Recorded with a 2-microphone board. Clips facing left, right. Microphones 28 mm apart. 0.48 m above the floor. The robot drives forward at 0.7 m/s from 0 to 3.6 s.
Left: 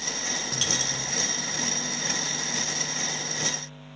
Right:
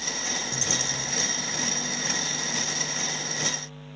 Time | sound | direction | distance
0.5 | a dropped coin | 65° left (ahead or behind) | 0.6 m